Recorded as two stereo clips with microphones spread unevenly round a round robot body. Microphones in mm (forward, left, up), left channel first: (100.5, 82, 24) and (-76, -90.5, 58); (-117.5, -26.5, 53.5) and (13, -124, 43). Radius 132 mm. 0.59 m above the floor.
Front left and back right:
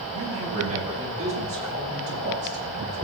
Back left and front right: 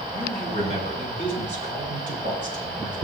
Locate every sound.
0.1 s a man speaking: 70° right, 5.5 m; by 3.0 s 75° right, 8 m